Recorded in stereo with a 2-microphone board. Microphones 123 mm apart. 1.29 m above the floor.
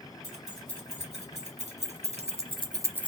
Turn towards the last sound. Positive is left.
turn(degrees=-10)  # may be behind; listen again after turning